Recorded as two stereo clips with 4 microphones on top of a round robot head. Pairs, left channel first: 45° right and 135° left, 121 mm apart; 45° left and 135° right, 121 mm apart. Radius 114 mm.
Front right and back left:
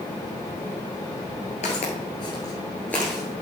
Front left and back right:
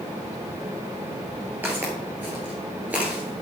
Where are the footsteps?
60° right, 1.6 m; by 3.4 s 175° left, 1.3 m.